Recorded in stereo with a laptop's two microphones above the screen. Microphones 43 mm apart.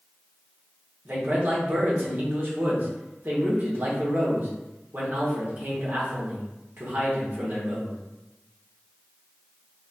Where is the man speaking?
45° right (ahead or behind), 1.0 m.